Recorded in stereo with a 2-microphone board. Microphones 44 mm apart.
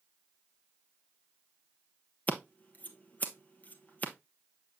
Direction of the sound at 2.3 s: 40° left (ahead or behind).